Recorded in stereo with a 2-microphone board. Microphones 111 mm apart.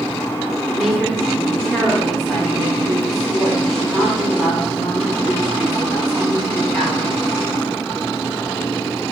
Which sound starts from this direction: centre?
A woman speaking, at 0.7 s.